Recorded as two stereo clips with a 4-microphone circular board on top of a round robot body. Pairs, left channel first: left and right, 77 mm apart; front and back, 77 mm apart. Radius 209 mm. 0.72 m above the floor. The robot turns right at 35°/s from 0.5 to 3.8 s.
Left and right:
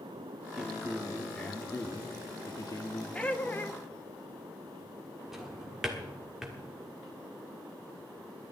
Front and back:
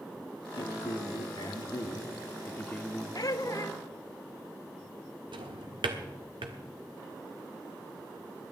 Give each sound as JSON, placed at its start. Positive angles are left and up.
{"t": 0.6, "sound": "a man speaking", "azimuth_deg": -15, "distance_m": 2.5}
{"t": 3.1, "sound": "laughter", "azimuth_deg": 15, "distance_m": 1.2}
{"t": 5.3, "sound": "a drawer", "azimuth_deg": -175, "distance_m": 1.3}